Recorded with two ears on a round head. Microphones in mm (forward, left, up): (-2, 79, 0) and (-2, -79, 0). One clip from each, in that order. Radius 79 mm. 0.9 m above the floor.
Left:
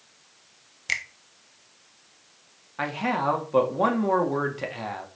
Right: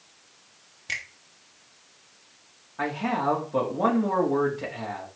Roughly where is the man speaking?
Left.